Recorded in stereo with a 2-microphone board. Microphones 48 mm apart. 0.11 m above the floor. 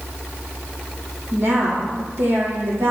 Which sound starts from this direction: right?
A woman speaking, at 1.3 s.